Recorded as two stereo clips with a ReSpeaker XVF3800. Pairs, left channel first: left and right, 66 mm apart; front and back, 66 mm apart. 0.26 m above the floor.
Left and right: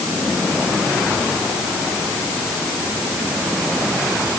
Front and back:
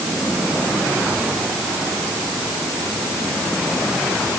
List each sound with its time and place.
Only background noise.